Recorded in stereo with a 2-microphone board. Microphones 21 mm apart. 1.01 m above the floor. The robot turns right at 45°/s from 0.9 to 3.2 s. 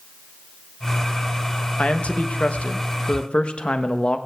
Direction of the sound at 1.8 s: 65° left.